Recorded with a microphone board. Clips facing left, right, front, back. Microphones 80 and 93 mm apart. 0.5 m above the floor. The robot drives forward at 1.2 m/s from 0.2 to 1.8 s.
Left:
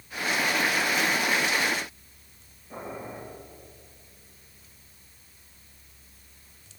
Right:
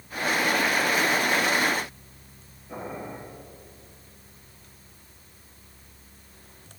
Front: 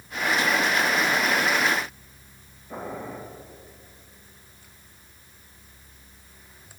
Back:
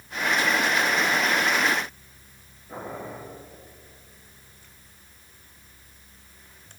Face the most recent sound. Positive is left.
turn(degrees=-115)